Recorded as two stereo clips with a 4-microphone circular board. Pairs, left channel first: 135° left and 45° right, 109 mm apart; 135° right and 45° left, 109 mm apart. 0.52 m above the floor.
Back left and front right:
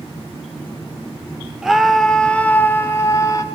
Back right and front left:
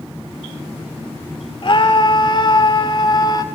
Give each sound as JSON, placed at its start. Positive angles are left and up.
{"t": 1.6, "sound": "a scream", "azimuth_deg": -130, "distance_m": 1.4}